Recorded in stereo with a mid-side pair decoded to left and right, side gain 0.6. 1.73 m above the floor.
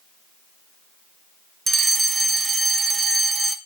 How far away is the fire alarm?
About 2 m.